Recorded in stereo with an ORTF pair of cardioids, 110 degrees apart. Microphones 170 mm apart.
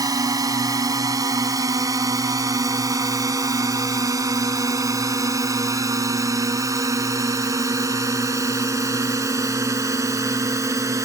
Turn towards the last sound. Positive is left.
turn(degrees=-20)